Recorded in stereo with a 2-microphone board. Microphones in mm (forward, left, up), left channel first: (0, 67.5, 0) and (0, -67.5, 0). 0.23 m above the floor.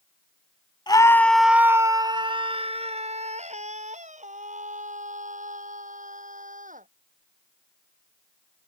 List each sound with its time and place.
0.9 s a scream: 30° left (ahead or behind); by 6.9 s 65° right (ahead or behind)